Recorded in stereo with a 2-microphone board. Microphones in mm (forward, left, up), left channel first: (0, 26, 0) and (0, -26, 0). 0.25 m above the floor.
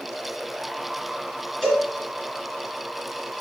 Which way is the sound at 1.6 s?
15° left (ahead or behind).